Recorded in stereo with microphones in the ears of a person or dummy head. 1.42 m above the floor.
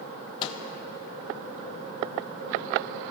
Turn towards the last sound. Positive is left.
turn(degrees=25)  # may be behind; listen again after turning